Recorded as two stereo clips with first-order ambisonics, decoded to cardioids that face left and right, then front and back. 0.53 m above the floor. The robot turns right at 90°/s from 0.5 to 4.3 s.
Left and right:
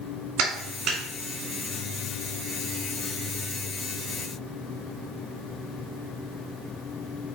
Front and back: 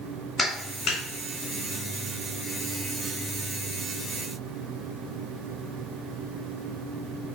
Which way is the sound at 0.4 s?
85° right.